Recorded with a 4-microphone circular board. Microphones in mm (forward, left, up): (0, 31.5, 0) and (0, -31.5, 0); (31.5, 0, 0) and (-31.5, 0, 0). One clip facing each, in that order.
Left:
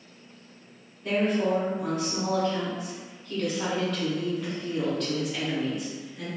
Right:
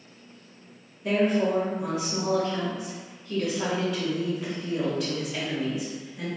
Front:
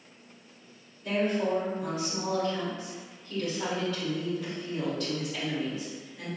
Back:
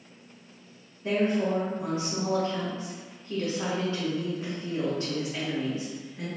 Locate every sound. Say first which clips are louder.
1.0 s a woman speaking: right 2 dB, back 2 dB; 165° right, 1.4 m